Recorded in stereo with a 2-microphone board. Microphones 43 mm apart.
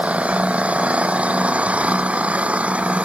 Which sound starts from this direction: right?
An engine running, at 0.0 s.